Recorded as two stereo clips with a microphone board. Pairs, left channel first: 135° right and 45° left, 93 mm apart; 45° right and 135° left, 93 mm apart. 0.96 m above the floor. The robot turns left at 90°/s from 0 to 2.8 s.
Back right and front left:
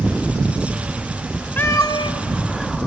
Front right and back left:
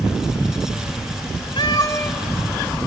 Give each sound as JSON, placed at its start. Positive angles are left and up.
{"t": 1.6, "sound": "a cat meowing", "azimuth_deg": -60, "distance_m": 1.8}